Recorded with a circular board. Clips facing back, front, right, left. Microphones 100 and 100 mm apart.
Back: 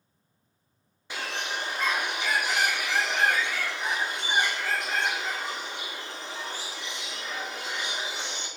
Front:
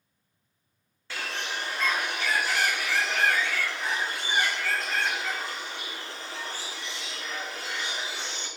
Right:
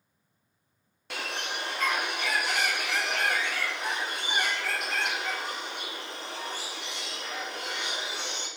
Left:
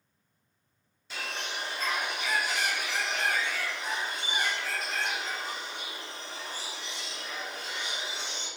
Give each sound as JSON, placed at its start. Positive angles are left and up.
{"t": 1.1, "sound": "a bird", "azimuth_deg": -110, "distance_m": 0.5}